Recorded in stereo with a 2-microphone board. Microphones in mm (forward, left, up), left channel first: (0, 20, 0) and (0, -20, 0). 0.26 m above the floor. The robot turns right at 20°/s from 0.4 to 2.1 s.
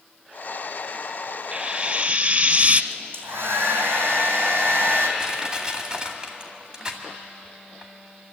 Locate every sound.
1.5 s frying: 30° right (ahead or behind), 0.7 m; by 2.8 s 45° right (ahead or behind), 0.7 m
2.9 s a hair dryer: 80° right, 3.5 m
5.2 s crushing: 20° right (ahead or behind), 2.0 m